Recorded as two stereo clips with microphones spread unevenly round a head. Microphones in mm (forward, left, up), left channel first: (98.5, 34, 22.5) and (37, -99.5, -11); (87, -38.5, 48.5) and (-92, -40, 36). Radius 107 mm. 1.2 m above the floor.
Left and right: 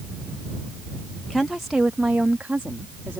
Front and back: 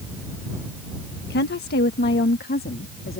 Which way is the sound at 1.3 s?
25° right.